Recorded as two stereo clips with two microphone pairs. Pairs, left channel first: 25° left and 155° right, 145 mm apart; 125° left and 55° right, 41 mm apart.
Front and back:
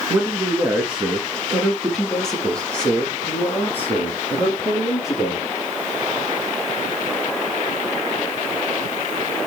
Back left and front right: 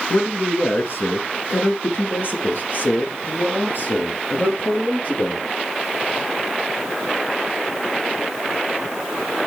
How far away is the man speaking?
About 2.5 m.